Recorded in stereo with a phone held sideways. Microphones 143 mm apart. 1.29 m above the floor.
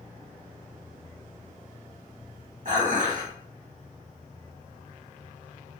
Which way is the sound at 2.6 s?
60° right (ahead or behind).